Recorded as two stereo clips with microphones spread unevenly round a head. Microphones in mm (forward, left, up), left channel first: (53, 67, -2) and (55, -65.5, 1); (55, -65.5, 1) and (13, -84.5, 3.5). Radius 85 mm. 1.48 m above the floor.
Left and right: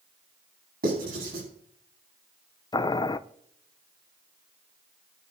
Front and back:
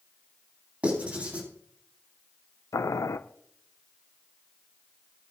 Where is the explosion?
I don't hear an explosion.